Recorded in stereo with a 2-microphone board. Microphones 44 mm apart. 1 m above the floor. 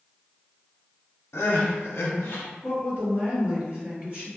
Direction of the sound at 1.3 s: 80° left.